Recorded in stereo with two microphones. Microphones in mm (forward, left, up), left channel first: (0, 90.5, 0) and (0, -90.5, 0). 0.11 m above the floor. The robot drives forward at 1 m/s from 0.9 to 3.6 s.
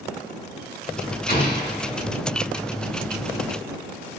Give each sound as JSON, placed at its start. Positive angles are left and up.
{"t": 1.3, "sound": "an explosion", "side_deg": 55, "distance_m": 3.5}